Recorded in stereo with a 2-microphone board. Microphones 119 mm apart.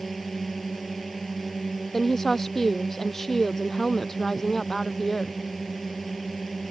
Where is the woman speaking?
5° left (ahead or behind).